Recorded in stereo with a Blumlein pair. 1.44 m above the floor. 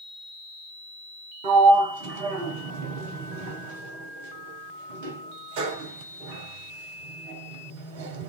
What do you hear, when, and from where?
1.4 s a sliding door: 50° right, 0.6 m